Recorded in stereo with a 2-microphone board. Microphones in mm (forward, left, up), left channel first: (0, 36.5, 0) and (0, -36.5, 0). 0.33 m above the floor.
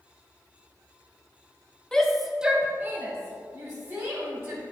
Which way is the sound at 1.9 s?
10° left (ahead or behind).